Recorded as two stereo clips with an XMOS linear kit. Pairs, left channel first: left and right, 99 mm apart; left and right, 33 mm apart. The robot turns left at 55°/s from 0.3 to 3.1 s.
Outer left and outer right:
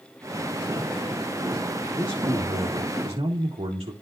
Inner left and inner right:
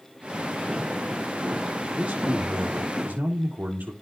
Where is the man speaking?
40° right, 1.8 m; by 3.9 s 105° right, 1.8 m.